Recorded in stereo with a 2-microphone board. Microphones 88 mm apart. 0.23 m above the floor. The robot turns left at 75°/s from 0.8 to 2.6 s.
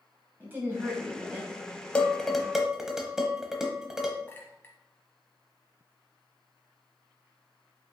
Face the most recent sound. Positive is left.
turn(degrees=25)  # may be behind; listen again after turning